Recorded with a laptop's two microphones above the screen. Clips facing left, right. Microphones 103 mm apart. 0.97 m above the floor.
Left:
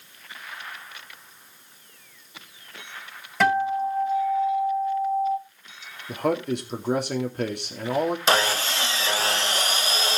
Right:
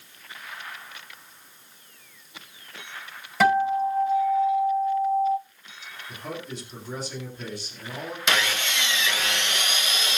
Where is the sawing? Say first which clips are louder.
Left 4 dB; 35° left (ahead or behind), 0.8 m.